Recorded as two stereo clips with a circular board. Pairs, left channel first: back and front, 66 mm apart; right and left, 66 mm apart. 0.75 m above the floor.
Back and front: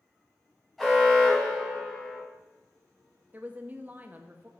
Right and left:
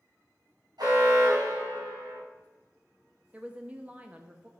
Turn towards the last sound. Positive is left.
turn(degrees=40)